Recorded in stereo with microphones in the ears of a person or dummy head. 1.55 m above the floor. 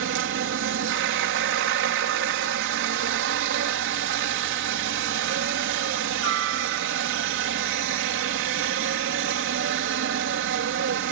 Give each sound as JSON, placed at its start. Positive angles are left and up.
{"t": 0.0, "sound": "a helicopter", "side_deg": -60}